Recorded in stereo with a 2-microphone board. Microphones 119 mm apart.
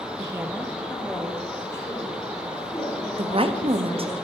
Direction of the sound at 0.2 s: 35° right (ahead or behind).